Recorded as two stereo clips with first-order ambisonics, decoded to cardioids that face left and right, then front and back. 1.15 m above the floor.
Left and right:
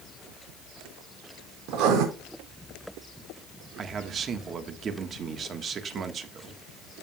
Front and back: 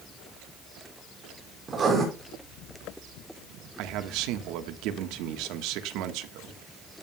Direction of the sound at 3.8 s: 155° right.